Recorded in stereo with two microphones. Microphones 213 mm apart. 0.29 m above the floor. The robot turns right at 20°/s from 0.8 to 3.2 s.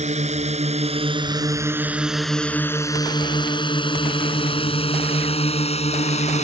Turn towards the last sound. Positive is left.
turn(degrees=30)  # may be behind; listen again after turning